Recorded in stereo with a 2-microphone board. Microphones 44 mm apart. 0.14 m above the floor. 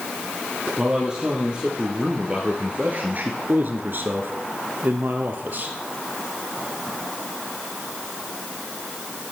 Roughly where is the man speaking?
Centre.